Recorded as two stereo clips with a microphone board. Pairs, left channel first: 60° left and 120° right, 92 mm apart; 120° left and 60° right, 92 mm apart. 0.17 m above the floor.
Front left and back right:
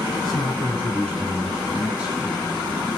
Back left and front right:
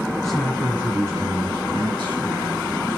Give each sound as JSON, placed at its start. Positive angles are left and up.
{"t": 0.2, "sound": "a man speaking", "azimuth_deg": 45, "distance_m": 1.6}